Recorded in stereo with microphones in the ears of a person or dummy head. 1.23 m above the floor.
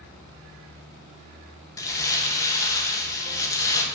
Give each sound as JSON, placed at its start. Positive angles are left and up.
{"t": 1.8, "sound": "crumpling", "side_deg": 20, "distance_m": 1.6}